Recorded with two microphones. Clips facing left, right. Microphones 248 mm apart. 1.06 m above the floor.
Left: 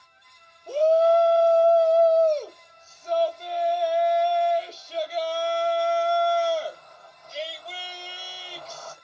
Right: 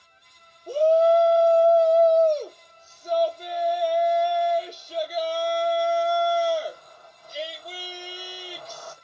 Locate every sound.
0.7 s a shout: 10° right (ahead or behind), 1.6 m